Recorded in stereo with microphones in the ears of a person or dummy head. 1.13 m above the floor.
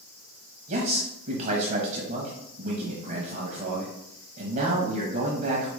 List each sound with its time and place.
0.7 s a man speaking: 45° right (ahead or behind), 1.1 m